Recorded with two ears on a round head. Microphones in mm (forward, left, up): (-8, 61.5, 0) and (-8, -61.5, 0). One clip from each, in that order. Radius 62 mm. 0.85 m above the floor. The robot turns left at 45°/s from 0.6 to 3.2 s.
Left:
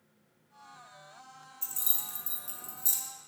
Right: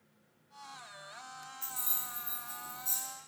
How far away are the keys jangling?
About 0.5 m.